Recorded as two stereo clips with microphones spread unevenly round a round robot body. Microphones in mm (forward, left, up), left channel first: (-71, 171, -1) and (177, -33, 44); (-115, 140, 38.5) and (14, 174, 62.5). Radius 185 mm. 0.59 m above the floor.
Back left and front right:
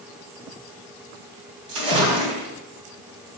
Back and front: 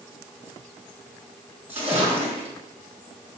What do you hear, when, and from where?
1.7 s a splash: 70° right, 2.5 m